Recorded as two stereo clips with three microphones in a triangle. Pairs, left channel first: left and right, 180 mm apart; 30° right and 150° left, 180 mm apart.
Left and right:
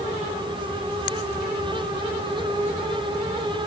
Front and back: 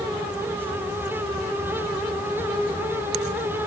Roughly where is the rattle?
I don't hear a rattle.